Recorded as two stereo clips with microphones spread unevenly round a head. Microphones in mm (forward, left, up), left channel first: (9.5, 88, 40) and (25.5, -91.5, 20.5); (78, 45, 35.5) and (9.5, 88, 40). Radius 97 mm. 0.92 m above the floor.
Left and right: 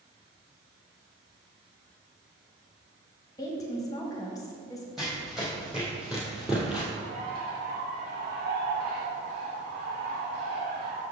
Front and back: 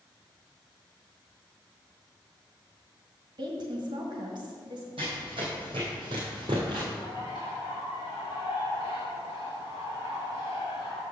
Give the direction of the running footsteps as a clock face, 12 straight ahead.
6 o'clock.